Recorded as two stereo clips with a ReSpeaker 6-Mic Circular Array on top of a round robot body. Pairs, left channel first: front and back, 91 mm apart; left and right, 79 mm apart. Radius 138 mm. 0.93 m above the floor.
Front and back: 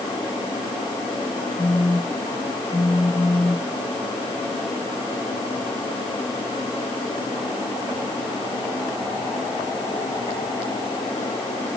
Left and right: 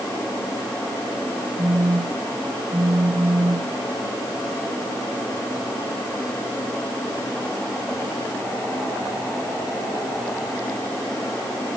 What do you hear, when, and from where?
1.6 s a phone buzzing: 65° right, 4 m